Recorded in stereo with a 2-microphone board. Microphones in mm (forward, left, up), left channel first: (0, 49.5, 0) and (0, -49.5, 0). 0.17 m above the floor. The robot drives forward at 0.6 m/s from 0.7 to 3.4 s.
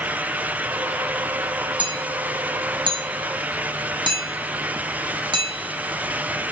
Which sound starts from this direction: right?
Hammering, at 1.8 s.